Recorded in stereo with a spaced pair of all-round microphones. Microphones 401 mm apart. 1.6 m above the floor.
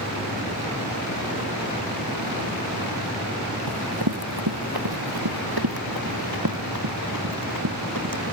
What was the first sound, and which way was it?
Running footsteps, 70° right (ahead or behind).